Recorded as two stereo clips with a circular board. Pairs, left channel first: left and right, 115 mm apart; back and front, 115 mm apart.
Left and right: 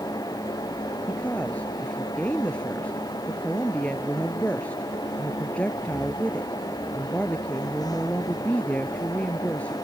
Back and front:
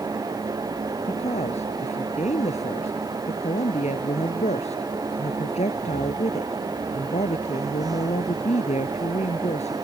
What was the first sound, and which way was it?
A woman speaking, 170° left.